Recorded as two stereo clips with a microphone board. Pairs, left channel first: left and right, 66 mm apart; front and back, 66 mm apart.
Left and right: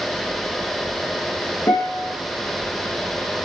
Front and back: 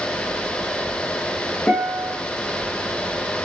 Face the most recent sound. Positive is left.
turn(degrees=70)